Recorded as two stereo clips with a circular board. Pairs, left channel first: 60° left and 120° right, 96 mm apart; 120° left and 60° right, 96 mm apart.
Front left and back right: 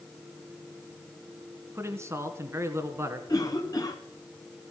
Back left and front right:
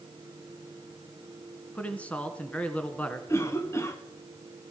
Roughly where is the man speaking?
Behind.